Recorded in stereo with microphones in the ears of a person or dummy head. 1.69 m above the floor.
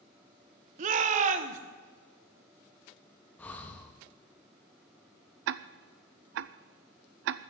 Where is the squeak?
I don't hear a squeak.